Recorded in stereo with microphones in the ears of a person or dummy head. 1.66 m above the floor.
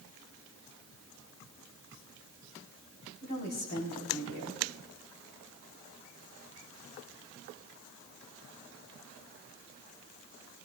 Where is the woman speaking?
50° left (ahead or behind), 3.5 m.